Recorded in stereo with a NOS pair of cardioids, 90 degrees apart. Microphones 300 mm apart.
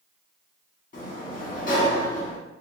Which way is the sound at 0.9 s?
25° left.